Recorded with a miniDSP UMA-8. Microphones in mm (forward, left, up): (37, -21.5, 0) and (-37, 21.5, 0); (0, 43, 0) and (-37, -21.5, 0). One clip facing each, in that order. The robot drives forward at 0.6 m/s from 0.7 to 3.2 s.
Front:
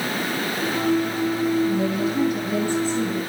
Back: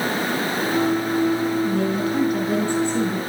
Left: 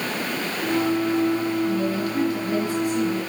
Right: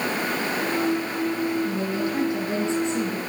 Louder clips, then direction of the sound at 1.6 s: Even, left 2 dB; 175° left.